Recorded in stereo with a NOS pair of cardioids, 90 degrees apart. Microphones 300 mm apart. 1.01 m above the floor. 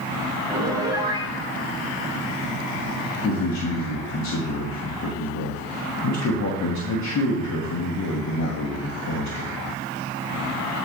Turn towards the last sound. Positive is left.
turn(degrees=60)